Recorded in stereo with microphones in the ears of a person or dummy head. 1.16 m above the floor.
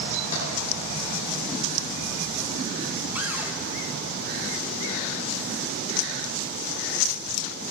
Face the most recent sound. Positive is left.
turn(degrees=-15)  # may be behind; listen again after turning